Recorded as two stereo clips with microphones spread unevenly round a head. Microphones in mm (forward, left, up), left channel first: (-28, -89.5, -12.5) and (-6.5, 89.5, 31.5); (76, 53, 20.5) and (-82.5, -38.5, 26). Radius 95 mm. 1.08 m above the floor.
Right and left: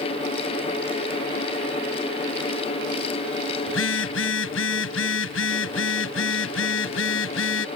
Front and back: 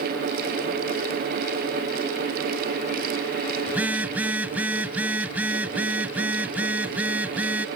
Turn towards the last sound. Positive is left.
turn(degrees=-70)